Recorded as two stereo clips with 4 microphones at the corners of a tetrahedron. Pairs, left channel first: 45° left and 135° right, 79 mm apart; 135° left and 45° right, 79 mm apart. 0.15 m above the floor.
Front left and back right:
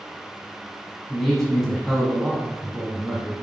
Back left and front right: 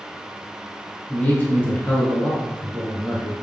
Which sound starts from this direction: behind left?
A man speaking, at 1.1 s.